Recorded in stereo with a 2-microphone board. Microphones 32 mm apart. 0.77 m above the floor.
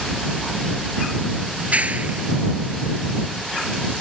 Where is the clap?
50° right (ahead or behind).